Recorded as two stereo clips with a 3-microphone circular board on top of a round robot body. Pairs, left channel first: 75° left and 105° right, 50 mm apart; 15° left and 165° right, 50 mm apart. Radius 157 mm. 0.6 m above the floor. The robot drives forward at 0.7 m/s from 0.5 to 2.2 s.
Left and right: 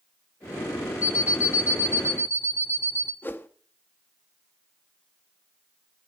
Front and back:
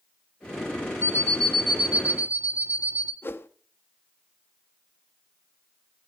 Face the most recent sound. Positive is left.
turn(degrees=45)